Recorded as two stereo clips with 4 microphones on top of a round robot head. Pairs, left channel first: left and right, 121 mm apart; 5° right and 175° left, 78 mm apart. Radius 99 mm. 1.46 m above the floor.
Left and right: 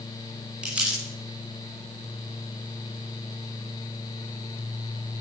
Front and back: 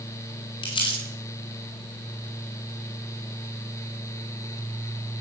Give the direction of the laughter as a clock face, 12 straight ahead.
I don't hear laughter.